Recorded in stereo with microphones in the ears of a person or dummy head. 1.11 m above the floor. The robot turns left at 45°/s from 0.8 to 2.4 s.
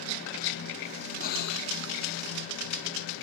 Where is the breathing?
55° left (ahead or behind); by 1.7 s 75° left (ahead or behind).